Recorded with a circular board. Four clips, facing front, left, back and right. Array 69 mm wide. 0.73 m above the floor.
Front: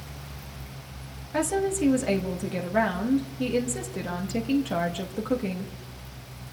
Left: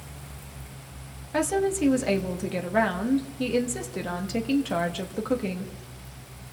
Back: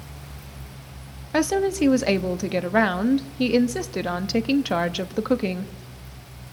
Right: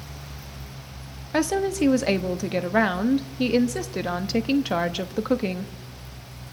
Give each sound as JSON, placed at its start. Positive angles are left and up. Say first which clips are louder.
{"t": 1.3, "sound": "a woman speaking", "louder": "right 2 dB, back 4 dB", "azimuth_deg": -150, "distance_m": 1.0}